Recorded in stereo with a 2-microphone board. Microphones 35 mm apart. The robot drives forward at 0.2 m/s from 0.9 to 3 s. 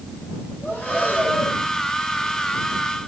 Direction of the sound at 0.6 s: 45° left (ahead or behind).